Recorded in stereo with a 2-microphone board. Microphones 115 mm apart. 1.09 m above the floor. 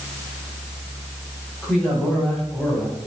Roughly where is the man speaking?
Centre.